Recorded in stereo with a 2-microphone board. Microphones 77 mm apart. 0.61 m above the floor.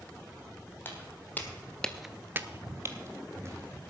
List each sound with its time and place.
0.8 s footsteps: 25° left (ahead or behind), 2.0 m; by 3.8 s 35° right (ahead or behind), 2.5 m